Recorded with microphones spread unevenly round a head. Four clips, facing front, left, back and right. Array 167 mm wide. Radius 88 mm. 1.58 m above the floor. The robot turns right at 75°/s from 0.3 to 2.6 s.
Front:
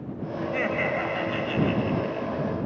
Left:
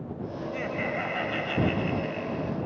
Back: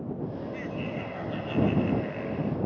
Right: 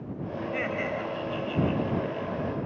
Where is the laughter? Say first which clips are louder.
Right 1 dB, front 7 dB; 20° right; by 2.7 s 140° left.